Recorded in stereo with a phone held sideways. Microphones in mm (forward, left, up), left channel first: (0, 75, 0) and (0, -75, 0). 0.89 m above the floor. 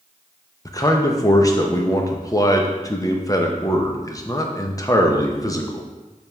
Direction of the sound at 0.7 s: 25° left (ahead or behind).